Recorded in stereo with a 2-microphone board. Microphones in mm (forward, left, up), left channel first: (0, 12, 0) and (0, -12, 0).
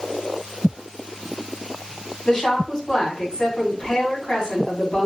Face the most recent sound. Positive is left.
turn(degrees=35)  # may be behind; listen again after turning